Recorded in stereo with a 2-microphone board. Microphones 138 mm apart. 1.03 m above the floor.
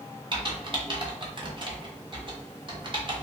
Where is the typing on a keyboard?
40° right (ahead or behind), 0.9 m.